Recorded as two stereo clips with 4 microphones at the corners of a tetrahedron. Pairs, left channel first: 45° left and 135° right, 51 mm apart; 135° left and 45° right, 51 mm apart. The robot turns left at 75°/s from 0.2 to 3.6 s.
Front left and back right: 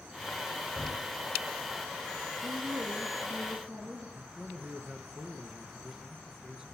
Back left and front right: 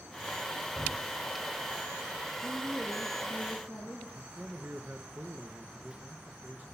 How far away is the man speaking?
About 1.3 m.